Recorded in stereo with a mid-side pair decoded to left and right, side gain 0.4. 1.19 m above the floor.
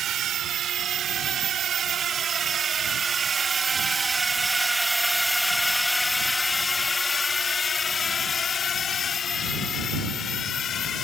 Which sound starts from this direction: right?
A drone, at 0.0 s.